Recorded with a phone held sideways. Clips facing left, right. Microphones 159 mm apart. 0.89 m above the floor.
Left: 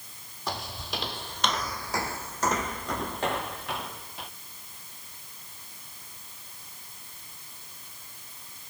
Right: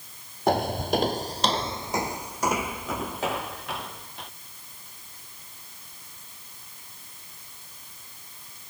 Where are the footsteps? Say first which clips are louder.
Right 13 dB; 55° right (ahead or behind); by 4.3 s centre (ahead or behind).